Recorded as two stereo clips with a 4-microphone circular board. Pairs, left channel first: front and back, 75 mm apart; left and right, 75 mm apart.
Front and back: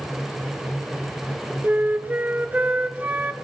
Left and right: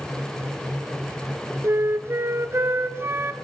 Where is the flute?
125° right, 0.5 m.